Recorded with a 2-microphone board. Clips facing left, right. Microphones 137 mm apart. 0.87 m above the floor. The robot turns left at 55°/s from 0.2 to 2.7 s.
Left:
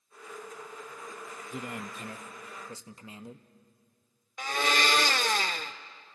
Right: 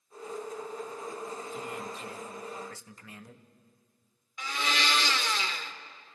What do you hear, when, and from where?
1.5 s a man speaking: 95° left, 0.8 m; by 3.5 s 25° left, 0.8 m
4.4 s a blender: 50° left (ahead or behind), 0.6 m